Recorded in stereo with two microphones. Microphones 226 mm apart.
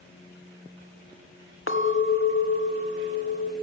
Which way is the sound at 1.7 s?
65° left (ahead or behind).